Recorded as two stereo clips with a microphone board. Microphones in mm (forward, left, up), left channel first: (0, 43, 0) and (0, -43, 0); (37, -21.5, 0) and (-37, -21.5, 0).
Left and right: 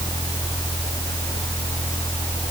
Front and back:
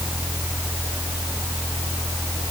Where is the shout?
I don't hear a shout.